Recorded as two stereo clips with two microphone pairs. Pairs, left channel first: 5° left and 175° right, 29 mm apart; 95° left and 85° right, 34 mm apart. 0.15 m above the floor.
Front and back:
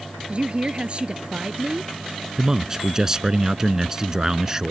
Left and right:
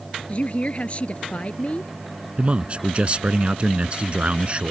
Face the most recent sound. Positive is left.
turn(degrees=-120)